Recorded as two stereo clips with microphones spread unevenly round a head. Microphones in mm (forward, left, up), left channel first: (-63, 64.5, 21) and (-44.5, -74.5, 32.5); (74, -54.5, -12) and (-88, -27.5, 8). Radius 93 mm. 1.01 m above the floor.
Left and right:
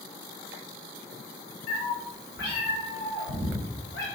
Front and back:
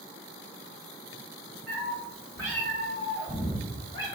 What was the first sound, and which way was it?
A cat meowing, 85° left.